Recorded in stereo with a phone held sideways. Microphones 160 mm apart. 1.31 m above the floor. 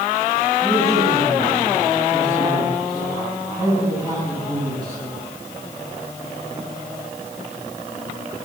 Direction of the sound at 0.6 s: 25° right (ahead or behind).